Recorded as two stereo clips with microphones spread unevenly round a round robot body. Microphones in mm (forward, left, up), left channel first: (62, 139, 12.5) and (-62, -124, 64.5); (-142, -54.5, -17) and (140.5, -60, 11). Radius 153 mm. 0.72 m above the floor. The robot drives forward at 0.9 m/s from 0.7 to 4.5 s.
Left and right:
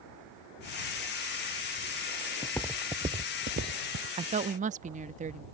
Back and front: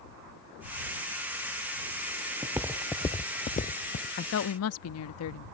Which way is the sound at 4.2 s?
170° left.